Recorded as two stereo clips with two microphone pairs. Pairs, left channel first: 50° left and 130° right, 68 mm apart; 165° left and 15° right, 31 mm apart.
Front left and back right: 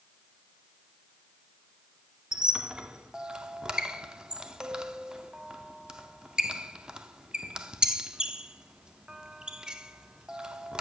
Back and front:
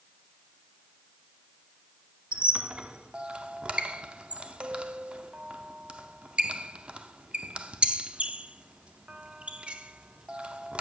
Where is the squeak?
55° right, 0.6 m.